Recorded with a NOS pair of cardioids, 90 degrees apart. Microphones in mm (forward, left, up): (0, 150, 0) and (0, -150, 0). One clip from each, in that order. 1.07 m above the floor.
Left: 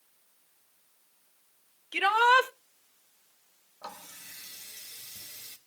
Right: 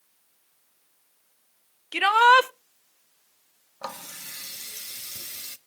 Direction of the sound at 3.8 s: 55° right.